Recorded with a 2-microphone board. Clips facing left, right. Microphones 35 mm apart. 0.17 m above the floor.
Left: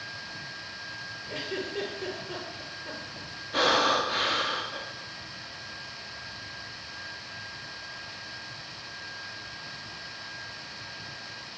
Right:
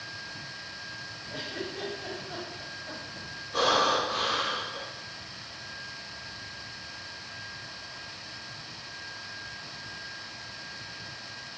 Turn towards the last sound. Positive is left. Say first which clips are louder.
# left 1 dB
turn(degrees=55)  # may be behind; listen again after turning